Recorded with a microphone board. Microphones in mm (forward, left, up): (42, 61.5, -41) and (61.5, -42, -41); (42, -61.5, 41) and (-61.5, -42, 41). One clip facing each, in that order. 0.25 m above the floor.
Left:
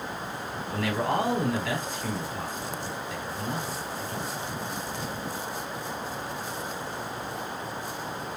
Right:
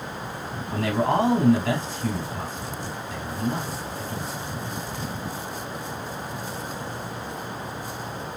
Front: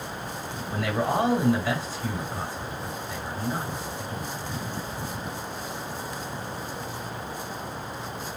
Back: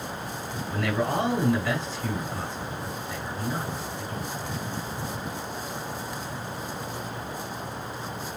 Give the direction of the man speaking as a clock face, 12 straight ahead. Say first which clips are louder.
Right 5 dB, front 1 dB; 3 o'clock.